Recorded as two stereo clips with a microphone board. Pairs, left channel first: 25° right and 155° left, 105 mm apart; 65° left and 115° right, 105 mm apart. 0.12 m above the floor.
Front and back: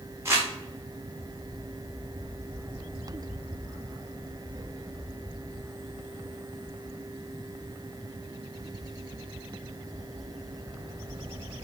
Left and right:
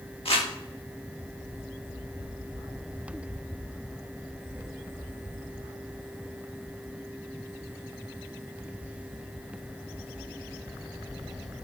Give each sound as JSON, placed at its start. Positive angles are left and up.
{"t": 0.2, "sound": "crumpling", "azimuth_deg": 95, "distance_m": 5.5}